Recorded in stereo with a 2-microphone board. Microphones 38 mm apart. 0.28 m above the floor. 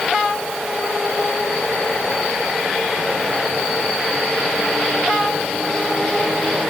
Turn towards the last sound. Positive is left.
No sound to turn to.